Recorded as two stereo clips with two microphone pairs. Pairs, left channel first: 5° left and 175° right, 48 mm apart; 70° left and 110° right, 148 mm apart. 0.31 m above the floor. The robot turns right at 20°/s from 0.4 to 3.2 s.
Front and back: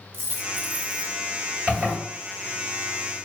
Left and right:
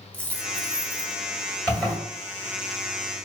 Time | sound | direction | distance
0.1 | a dropped coin | 145° left | 0.6 m
1.7 | a zipper | 145° left | 1.8 m